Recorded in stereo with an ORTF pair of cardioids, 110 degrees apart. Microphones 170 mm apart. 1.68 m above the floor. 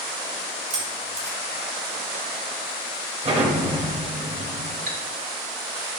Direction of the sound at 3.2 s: 40° right.